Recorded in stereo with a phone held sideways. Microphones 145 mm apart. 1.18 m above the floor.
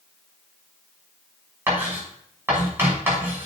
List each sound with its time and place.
1.7 s writing: 15° right (ahead or behind), 6 m